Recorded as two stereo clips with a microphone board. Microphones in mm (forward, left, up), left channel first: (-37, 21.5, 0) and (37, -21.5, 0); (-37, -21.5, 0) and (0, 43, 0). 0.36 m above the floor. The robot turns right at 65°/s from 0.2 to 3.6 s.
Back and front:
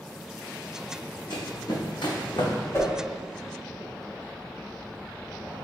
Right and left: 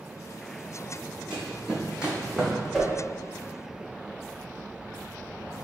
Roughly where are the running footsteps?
Behind left.